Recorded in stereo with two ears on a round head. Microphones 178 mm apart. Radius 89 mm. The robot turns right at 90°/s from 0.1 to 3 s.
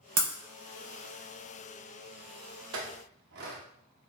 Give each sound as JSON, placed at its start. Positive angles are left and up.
{"t": 0.2, "sound": "breaking glass", "side_deg": -65, "distance_m": 1.2}
{"t": 2.7, "sound": "a clink", "side_deg": -80, "distance_m": 0.7}